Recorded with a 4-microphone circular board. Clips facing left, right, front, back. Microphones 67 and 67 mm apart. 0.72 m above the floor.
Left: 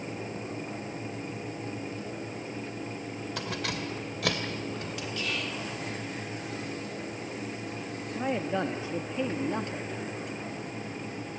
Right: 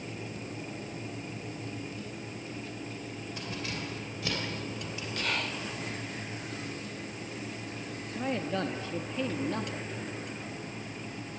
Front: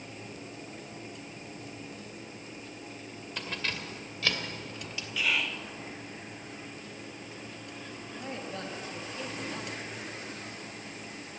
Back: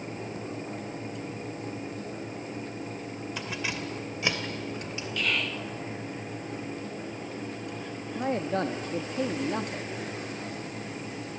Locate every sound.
3.4 s keys jangling: 95° left, 2 m; by 5.1 s 115° left, 3 m
5.2 s whispering: 85° right, 1.2 m
8.2 s a man speaking: 160° left, 0.8 m